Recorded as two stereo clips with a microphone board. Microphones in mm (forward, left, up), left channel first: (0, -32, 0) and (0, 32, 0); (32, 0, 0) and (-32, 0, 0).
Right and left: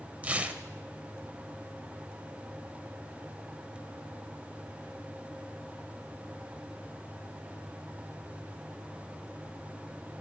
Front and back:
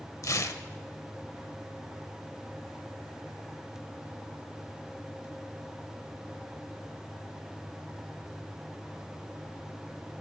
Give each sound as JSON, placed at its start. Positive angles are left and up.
{"t": 0.2, "sound": "tearing paper", "azimuth_deg": 25, "distance_m": 0.5}